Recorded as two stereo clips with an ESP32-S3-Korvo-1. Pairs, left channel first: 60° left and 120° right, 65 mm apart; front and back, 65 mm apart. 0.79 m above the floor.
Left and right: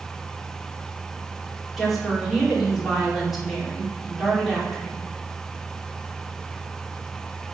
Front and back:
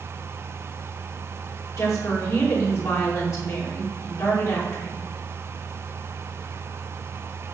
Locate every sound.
1.8 s a woman speaking: 35° right, 2.5 m